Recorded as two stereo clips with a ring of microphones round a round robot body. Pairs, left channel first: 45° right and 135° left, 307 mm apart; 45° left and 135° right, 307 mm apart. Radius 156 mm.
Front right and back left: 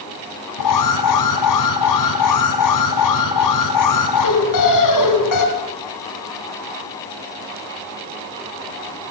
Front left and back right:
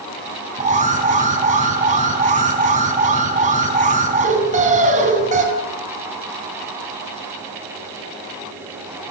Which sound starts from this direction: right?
An alarm, at 0.6 s.